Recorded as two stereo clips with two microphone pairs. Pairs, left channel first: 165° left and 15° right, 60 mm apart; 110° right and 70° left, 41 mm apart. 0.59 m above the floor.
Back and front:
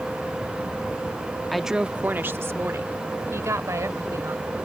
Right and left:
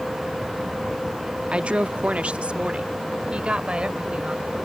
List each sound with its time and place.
1.5 s a woman speaking: 85° left; by 4.6 s 5° left